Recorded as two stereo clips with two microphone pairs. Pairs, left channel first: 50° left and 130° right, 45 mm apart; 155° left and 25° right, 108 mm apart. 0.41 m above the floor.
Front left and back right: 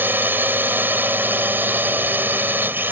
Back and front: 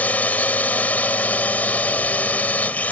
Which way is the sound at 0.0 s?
135° right.